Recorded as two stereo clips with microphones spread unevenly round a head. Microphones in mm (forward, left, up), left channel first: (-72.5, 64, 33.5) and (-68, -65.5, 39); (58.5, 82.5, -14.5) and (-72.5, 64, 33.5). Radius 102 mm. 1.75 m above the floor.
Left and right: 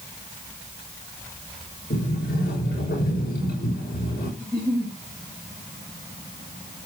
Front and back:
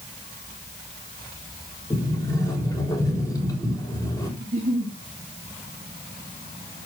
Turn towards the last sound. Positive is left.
turn(degrees=175)